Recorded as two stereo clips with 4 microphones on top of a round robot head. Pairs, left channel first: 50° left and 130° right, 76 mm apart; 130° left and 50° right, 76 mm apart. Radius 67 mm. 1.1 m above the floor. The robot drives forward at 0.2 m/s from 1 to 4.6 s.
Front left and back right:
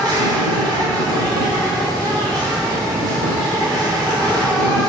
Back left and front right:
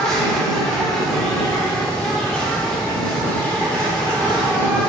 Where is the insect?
150° right, 2.5 m; by 4.9 s 155° right, 3 m.